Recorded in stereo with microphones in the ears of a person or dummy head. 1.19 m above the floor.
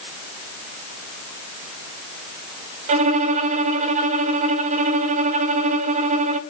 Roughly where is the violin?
Right.